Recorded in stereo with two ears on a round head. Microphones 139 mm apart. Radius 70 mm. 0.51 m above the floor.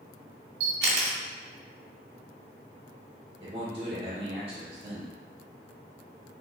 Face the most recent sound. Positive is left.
turn(degrees=-40)  # may be behind; listen again after turning